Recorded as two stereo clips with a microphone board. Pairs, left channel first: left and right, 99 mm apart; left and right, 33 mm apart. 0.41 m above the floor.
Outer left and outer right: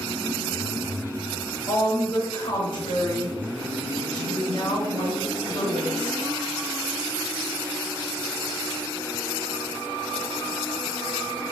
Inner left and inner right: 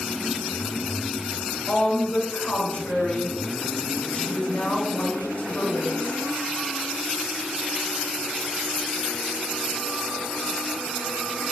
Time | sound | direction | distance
1.7 | a woman speaking | 50° left (ahead or behind) | 2 m